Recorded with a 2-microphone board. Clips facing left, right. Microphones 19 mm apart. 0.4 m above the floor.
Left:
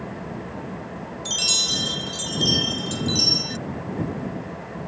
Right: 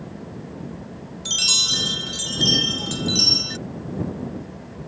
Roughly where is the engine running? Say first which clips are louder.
Left 3 dB; left.